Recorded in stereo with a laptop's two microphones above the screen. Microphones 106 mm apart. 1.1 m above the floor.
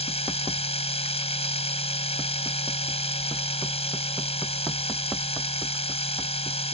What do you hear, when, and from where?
0.0 s a machine running: 85° left